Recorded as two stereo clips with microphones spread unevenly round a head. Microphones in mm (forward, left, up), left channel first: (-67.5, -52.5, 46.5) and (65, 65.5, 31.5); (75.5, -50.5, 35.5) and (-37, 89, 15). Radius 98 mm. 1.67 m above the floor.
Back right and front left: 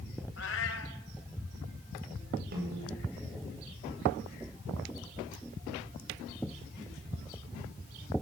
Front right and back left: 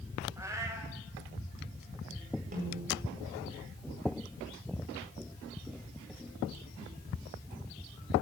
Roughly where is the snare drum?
Left.